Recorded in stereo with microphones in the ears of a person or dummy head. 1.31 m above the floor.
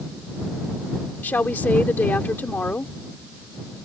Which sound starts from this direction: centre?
A woman speaking, at 1.2 s.